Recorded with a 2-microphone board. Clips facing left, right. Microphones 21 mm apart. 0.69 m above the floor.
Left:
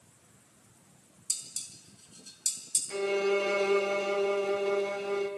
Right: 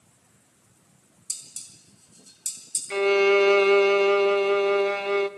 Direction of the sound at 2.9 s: 35° right (ahead or behind).